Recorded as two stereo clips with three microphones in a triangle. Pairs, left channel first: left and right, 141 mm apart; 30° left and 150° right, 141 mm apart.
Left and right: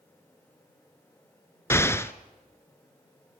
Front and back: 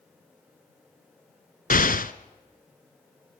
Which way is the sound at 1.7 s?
20° left.